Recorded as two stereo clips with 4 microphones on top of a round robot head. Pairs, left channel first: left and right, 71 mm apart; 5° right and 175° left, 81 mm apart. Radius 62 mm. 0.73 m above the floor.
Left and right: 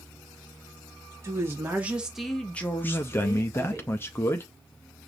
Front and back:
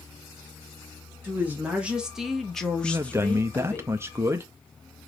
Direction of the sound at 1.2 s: 125° right.